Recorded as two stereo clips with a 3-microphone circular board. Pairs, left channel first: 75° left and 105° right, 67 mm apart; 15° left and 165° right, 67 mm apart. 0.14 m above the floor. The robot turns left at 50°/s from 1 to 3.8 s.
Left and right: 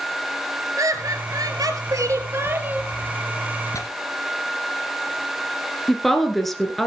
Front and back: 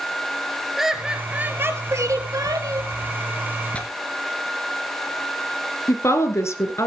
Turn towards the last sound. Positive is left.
turn(degrees=-15)